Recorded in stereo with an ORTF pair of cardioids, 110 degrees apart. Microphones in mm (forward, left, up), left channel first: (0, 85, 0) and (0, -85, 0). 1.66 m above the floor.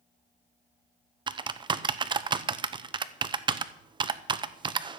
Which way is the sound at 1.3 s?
30° right.